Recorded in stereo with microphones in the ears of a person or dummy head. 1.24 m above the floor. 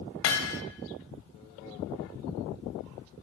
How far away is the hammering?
About 2.5 m.